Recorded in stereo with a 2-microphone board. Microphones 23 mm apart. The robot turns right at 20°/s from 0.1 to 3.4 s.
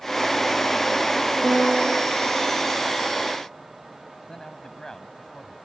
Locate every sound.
1.4 s a piano: 85° right; by 2.0 s 75° right (ahead or behind)
4.3 s a man speaking: 25° left (ahead or behind)